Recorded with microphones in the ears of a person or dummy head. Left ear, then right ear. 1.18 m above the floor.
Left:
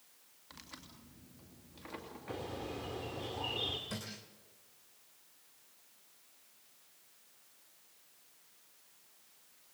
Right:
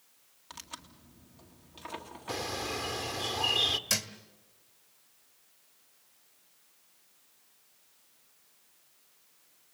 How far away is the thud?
About 1.8 m.